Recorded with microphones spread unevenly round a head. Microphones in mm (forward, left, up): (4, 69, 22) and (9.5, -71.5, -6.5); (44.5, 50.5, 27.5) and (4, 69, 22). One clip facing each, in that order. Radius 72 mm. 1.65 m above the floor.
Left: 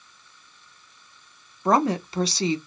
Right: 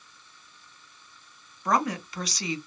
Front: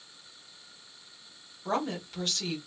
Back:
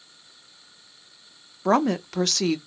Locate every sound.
1.6 s a woman speaking: 160° left, 0.5 m